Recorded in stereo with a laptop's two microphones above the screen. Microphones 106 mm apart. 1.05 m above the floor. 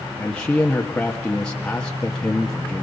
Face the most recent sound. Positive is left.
turn(degrees=10)  # may be behind; listen again after turning